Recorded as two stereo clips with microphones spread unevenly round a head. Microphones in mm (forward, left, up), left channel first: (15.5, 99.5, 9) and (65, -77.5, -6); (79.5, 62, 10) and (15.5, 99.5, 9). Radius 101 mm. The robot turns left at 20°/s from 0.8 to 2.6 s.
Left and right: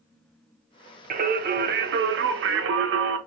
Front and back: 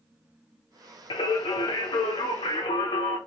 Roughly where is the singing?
Ahead right.